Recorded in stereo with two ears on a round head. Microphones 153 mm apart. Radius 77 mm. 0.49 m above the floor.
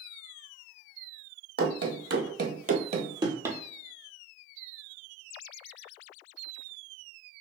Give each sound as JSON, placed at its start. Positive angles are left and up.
{"t": 1.6, "sound": "running footsteps", "side_deg": -65, "distance_m": 1.1}